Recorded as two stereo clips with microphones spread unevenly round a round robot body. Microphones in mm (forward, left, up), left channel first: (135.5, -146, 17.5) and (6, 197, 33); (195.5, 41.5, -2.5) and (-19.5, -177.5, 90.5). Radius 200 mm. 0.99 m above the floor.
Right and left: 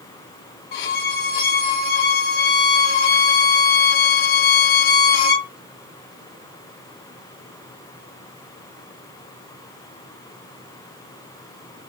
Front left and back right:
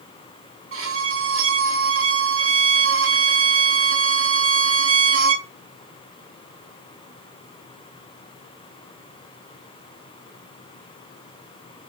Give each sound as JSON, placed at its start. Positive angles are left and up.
{"t": 0.7, "sound": "a violin", "azimuth_deg": -90, "distance_m": 3.0}